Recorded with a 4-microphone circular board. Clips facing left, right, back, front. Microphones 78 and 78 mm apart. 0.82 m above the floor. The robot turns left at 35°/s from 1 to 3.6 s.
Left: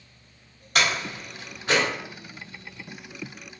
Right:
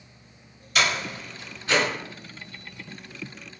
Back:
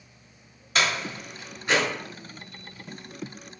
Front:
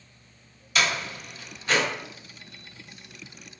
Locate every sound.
0.8 s a door slam: 130° left, 1.6 m; by 1.8 s 100° left, 1.6 m